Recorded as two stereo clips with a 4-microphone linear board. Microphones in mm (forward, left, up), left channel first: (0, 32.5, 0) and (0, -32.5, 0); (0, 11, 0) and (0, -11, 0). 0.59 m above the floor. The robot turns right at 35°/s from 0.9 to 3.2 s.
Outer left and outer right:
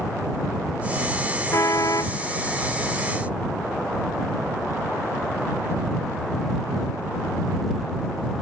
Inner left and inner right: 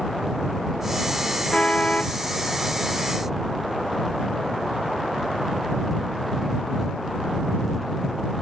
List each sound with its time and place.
1.5 s a car horn: 55° left (ahead or behind); by 2.2 s 75° left (ahead or behind)